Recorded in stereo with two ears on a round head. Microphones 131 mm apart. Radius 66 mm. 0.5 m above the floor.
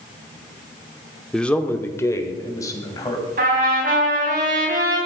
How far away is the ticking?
I don't hear ticking.